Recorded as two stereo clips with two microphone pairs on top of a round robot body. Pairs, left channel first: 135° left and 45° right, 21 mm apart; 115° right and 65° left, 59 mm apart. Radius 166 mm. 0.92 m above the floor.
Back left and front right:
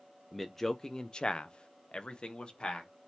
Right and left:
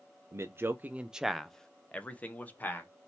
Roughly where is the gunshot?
I don't hear a gunshot.